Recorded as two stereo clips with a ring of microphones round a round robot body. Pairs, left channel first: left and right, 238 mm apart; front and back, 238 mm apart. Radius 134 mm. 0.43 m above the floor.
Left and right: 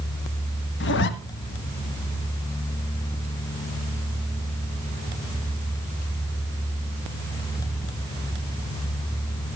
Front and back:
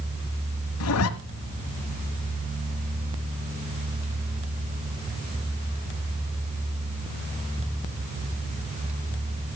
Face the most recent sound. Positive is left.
turn(degrees=40)